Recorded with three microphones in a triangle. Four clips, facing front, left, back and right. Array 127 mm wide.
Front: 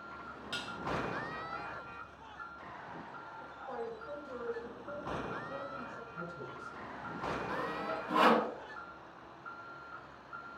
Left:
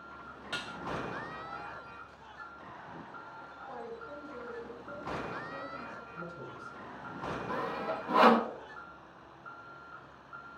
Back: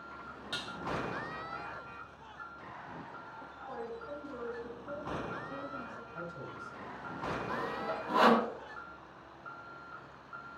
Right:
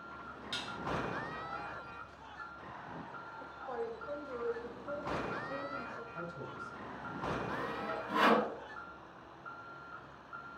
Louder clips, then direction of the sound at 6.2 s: Even, back 2 dB; 135° right.